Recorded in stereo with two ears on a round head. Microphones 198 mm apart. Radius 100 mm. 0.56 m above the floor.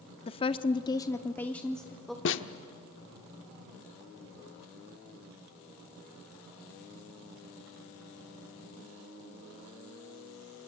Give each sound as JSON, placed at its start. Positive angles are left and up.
{"t": 0.3, "sound": "a woman speaking", "side_deg": 25, "distance_m": 0.7}
{"t": 2.2, "sound": "a snare drum", "side_deg": 60, "distance_m": 0.9}